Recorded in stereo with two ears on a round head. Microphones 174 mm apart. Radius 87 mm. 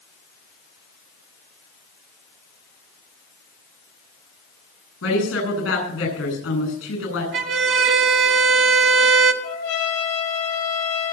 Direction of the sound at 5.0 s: 80° left.